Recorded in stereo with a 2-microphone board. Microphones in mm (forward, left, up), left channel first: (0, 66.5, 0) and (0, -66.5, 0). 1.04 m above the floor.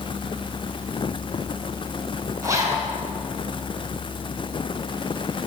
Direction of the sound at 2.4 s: 25° right (ahead or behind).